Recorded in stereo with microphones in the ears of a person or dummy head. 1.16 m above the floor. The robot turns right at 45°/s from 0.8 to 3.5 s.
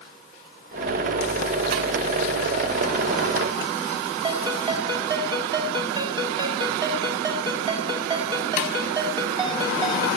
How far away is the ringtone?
About 1.8 m.